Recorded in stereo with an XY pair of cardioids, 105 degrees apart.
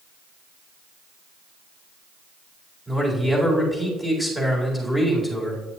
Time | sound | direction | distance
2.9 | a man speaking | 5° right | 4 m